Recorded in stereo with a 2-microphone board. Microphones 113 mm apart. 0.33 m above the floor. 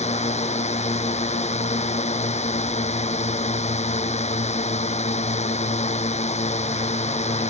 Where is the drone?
80° left.